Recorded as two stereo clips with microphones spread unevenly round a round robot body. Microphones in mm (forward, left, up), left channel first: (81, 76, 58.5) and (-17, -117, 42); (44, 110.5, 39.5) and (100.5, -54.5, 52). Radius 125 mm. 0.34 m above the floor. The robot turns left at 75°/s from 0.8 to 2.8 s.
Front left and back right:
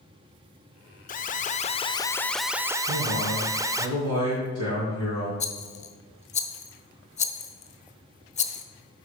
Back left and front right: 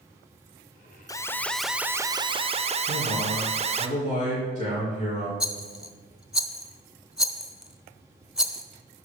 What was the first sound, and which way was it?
An alarm, 65° left.